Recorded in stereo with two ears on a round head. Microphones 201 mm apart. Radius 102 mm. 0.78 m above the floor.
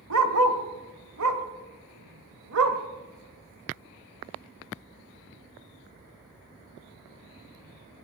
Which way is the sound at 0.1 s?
60° right (ahead or behind).